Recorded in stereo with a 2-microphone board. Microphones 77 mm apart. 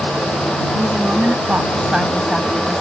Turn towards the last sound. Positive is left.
turn(degrees=5)  # may be behind; listen again after turning